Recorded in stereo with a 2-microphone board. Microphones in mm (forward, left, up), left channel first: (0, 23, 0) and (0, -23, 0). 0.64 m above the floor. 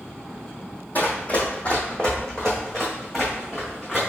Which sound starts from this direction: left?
Running footsteps, at 0.9 s.